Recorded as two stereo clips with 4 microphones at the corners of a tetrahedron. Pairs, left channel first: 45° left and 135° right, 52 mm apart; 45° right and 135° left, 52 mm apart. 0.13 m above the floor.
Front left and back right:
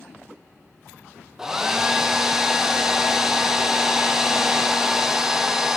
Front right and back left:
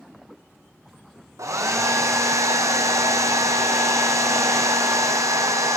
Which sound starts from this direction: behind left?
A hair dryer, at 1.4 s.